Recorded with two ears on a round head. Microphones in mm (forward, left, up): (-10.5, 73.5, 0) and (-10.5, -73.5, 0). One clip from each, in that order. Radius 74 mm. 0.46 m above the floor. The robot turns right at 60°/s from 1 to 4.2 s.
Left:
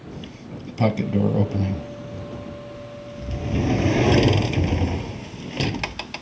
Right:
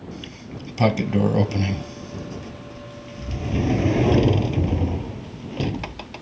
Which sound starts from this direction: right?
A sliding door, at 0.1 s.